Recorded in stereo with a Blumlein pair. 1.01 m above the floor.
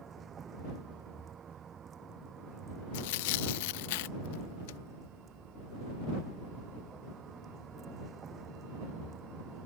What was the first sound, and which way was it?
A vehicle, 20° right.